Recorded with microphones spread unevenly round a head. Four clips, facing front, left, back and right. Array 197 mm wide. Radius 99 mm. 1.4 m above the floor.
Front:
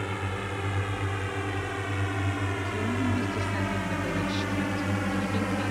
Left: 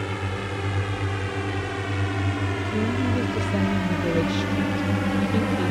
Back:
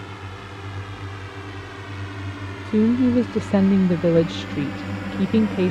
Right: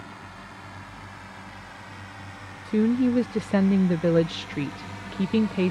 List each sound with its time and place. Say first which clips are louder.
0.0 s a drone: left 12 dB, front 4 dB; 80° left; by 5.7 s 95° left
2.6 s a woman speaking: right 6 dB, back 14 dB; 160° right